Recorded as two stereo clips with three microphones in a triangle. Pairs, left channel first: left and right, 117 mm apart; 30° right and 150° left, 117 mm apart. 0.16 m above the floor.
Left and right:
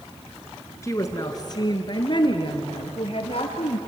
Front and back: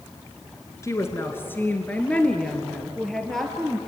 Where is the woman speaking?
30° left, 1.8 m; by 3.8 s 60° left, 3 m.